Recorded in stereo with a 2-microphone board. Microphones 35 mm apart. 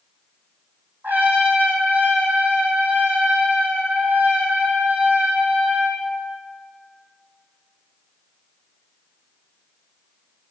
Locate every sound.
1.0 s a trumpet: 60° right (ahead or behind), 2.5 m